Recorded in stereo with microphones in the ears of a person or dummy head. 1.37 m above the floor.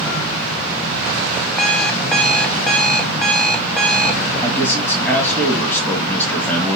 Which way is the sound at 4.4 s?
5° left (ahead or behind).